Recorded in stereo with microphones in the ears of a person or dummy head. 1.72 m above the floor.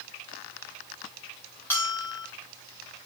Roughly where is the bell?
Centre.